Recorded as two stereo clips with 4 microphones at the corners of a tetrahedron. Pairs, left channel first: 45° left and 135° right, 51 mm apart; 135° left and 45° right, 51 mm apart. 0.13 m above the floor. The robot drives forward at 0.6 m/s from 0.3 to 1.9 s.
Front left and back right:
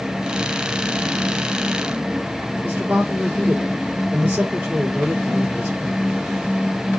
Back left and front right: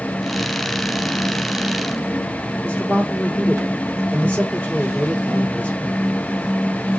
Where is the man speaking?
170° left, 1.7 m.